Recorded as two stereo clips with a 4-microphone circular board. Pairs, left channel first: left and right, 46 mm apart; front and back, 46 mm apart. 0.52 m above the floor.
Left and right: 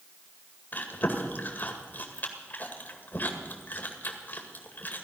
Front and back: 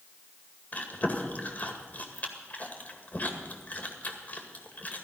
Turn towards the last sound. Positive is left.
turn(degrees=50)